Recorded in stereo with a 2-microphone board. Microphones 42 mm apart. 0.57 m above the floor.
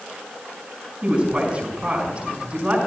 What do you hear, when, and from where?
1.0 s a woman speaking: 30° right (ahead or behind), 6 m